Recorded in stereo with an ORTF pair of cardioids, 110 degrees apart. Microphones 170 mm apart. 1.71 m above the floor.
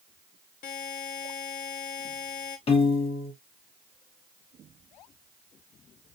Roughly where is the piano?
Ahead left.